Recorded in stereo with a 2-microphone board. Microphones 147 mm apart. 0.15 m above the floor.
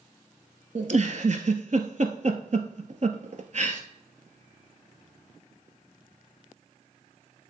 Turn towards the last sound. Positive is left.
turn(degrees=-55)  # may be behind; listen again after turning